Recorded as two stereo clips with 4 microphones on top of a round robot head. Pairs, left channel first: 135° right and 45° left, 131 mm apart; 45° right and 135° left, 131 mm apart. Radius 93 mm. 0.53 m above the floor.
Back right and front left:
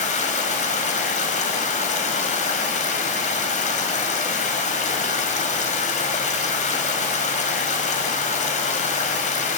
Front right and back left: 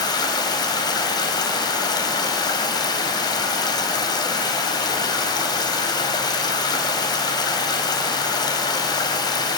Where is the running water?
105° right, 3 m.